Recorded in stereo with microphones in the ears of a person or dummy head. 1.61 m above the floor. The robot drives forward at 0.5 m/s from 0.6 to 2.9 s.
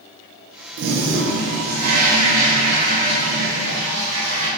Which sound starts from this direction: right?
A toilet flushing, at 0.8 s.